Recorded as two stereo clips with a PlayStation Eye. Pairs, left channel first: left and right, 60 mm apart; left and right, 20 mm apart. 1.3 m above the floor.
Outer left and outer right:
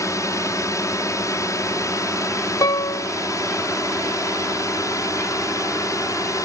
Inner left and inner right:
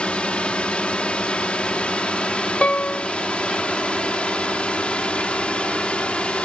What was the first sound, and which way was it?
A drone, 60° left (ahead or behind).